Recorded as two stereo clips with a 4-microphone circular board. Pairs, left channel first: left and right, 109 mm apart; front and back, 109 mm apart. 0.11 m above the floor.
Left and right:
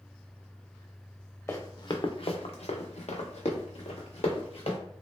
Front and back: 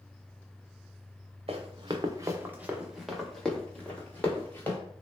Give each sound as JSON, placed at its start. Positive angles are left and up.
{"t": 1.5, "sound": "running footsteps", "azimuth_deg": 155, "distance_m": 0.7}